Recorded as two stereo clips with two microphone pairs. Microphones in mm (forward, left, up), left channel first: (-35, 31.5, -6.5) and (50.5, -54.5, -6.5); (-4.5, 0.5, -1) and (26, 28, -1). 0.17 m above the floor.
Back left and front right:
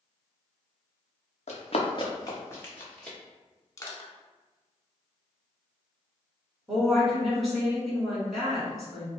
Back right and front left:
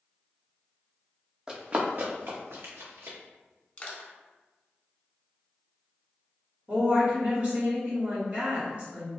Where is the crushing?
Straight behind, 0.6 m.